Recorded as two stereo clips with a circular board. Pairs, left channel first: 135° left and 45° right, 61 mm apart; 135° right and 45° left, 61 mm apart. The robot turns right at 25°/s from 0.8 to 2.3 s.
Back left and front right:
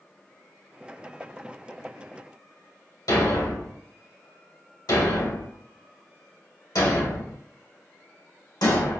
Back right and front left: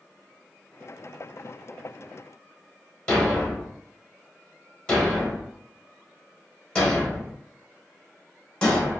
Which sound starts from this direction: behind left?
A thud, at 3.1 s.